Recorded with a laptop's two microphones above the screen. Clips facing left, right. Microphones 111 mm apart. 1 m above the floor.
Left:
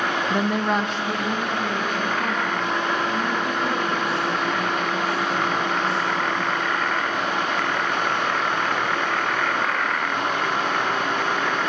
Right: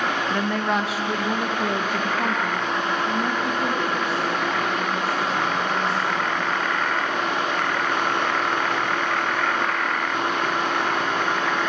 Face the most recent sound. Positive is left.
turn(degrees=-45)  # may be behind; listen again after turning